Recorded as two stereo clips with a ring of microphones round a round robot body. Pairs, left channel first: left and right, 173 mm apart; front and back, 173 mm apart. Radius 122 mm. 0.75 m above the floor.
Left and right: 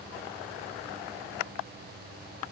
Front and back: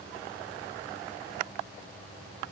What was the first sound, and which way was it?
Only background noise.